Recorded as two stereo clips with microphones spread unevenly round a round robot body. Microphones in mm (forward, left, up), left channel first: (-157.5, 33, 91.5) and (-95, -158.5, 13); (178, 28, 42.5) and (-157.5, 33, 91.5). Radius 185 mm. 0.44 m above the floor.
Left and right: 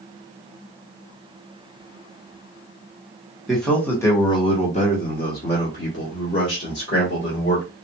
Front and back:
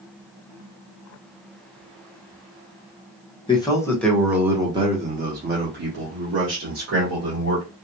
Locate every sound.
3.5 s a man speaking: 35° right, 1.3 m; by 7.7 s 135° left, 2 m